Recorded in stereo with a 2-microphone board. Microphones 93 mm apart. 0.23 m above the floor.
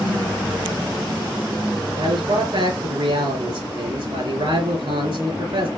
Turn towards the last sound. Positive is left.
turn(degrees=-70)  # may be behind; listen again after turning